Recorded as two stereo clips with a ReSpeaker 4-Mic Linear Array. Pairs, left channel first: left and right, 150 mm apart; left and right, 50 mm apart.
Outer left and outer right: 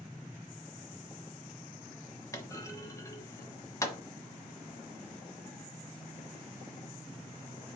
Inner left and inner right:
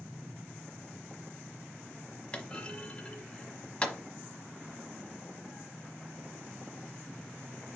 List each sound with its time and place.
2.3 s a clunk: 20° left (ahead or behind), 1.2 m